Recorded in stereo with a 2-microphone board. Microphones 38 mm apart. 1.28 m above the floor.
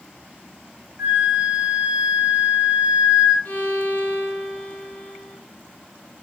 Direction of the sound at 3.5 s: 40° left (ahead or behind).